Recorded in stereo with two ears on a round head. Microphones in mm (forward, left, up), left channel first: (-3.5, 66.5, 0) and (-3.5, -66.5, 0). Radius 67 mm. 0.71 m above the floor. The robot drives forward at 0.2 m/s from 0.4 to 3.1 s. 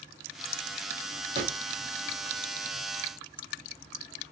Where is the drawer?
40° right (ahead or behind), 1.7 m.